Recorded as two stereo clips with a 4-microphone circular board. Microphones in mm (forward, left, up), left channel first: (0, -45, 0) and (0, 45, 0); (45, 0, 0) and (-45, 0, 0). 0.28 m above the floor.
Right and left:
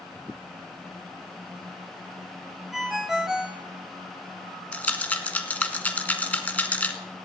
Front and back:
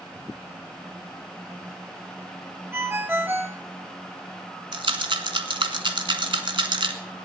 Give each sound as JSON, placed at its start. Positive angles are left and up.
{"t": 2.7, "sound": "a ringtone", "azimuth_deg": 170, "distance_m": 0.9}
{"t": 4.7, "sound": "a rattle", "azimuth_deg": -160, "distance_m": 1.1}